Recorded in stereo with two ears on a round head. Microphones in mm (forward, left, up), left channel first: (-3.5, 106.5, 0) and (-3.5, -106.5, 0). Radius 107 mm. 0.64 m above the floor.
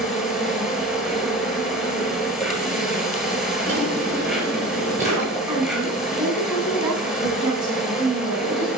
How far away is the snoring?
I don't hear snoring.